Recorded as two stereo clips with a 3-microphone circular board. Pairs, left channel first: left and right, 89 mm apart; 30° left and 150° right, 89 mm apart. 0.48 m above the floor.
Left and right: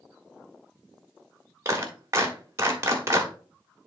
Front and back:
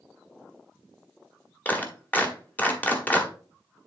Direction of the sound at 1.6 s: 40° right.